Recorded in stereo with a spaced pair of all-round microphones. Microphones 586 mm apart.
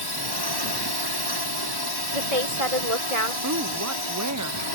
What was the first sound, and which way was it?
A drone, 40° left (ahead or behind).